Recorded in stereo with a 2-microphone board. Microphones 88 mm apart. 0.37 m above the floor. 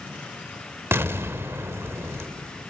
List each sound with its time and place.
0.9 s an explosion: 25° right (ahead or behind), 1.0 m